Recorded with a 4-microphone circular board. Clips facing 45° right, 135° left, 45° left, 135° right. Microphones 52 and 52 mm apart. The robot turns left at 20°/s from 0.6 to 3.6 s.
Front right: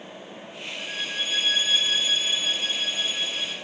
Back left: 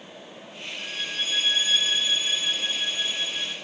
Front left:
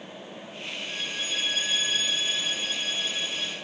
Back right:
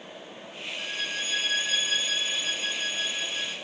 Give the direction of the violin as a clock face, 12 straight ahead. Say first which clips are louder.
Front right 1 dB, back right 2 dB; 4 o'clock.